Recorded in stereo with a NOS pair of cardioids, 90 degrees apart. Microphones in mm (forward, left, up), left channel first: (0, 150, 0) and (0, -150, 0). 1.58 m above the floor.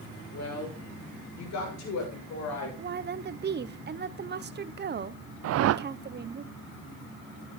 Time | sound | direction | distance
0.3 | a woman speaking | 60° left | 6.5 m
2.8 | a woman speaking | 35° right | 0.9 m
5.4 | a whoosh | 60° right | 0.5 m